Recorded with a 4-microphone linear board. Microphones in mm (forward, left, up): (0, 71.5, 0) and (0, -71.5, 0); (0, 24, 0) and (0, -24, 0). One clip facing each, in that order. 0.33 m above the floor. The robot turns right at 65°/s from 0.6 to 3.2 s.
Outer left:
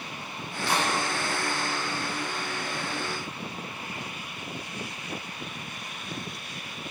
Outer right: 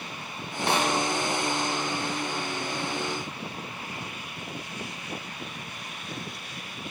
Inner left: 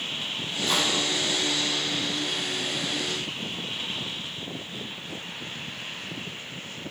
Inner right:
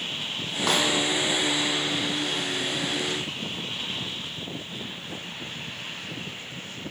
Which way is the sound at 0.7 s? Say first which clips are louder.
Outer right 2 dB, inner right 2 dB; 65° right (ahead or behind).